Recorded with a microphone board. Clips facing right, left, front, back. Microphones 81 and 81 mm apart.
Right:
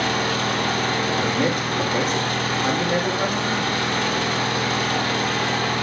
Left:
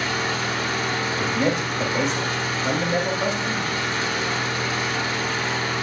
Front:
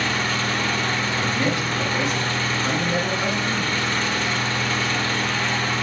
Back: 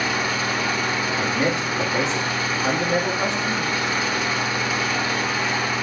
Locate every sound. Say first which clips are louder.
0.0 s an engine running: right 3 dB, even; 100° right, 1.7 m
1.2 s a man speaking: right 1 dB, back 2 dB; 120° right, 5 m